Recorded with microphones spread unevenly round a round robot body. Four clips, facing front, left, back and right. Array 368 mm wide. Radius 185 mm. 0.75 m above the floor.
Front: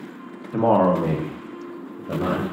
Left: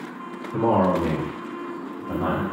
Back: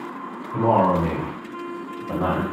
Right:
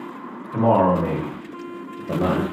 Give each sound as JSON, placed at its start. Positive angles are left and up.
{"t": 0.5, "sound": "a man speaking", "azimuth_deg": -5, "distance_m": 1.0}